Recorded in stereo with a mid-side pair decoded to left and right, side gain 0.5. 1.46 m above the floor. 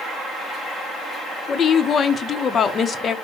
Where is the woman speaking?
45° left, 0.7 m.